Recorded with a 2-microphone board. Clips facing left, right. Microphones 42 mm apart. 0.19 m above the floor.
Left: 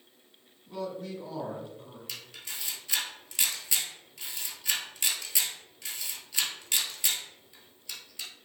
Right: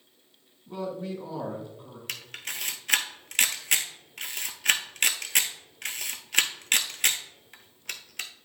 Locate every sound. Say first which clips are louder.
0.7 s a man speaking: right 3 dB; 25° right (ahead or behind), 1.4 m; by 2.0 s 15° right (ahead or behind), 2.5 m
2.1 s a camera shutter: right 7 dB; 60° right (ahead or behind), 0.8 m